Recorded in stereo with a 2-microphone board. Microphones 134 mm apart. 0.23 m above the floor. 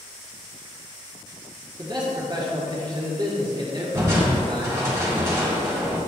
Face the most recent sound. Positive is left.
turn(degrees=-20)  # may be behind; listen again after turning